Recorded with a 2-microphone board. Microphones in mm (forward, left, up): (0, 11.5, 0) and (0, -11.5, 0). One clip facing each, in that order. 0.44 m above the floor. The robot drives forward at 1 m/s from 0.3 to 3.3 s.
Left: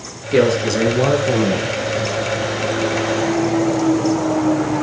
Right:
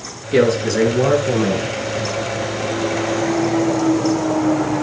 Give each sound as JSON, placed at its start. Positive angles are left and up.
{"t": 0.3, "sound": "a man speaking", "side_deg": 10, "distance_m": 5.0}